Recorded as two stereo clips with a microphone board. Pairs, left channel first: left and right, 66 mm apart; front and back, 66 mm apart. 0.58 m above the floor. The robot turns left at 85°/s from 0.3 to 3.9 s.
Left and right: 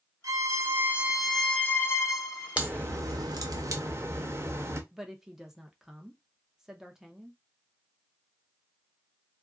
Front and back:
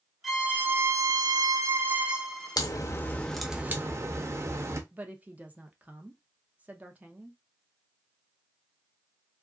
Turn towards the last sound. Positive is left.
turn(degrees=-160)